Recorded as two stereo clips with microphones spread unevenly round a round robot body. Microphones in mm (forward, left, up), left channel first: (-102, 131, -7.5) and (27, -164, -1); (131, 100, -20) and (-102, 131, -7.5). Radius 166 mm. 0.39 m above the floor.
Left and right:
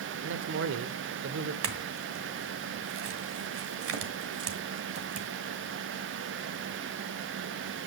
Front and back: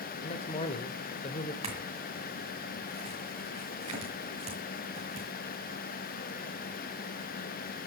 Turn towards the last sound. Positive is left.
turn(degrees=-115)